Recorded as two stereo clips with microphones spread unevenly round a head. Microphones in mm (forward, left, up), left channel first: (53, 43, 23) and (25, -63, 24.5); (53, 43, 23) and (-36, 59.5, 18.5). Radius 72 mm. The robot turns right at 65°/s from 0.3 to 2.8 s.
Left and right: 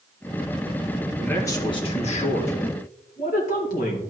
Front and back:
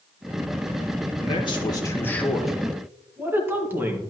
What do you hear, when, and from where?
1.2 s a man speaking: 5° right, 1.9 m; by 4.0 s 100° left, 1.9 m